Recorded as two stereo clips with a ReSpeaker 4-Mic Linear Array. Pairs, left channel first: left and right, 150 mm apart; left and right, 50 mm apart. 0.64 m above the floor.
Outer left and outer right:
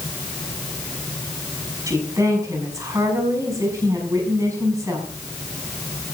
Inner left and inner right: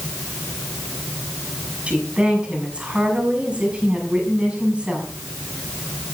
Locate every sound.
1.9 s a woman speaking: 20° right (ahead or behind), 6 m